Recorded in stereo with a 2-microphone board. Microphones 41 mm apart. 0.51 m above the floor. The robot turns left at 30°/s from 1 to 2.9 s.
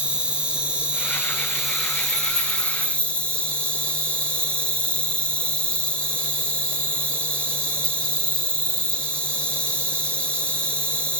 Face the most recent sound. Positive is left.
turn(degrees=145)